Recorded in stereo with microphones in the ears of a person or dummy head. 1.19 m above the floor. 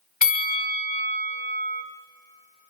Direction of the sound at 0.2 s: 40° left (ahead or behind).